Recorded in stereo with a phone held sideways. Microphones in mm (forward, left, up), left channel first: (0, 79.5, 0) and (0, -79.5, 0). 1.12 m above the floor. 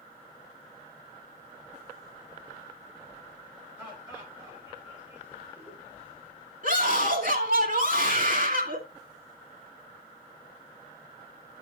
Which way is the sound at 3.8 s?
10° right (ahead or behind).